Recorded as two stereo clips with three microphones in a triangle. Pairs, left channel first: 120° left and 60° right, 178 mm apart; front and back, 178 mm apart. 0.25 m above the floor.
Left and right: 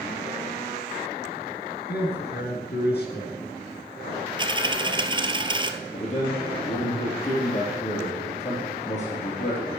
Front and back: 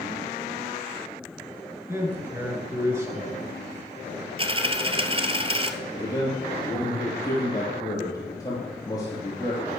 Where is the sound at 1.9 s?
105° left, 3.5 m.